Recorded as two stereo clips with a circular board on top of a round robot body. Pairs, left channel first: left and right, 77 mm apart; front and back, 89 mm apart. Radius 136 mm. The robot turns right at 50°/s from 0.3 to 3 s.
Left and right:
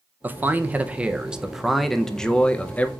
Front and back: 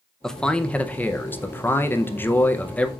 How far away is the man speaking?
About 0.7 m.